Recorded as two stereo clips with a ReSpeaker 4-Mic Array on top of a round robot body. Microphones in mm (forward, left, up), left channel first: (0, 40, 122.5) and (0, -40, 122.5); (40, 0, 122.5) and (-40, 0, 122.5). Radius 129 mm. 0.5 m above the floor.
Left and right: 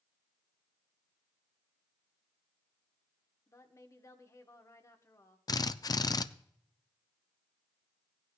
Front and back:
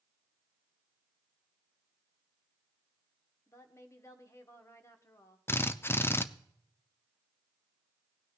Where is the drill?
60° left, 0.5 m.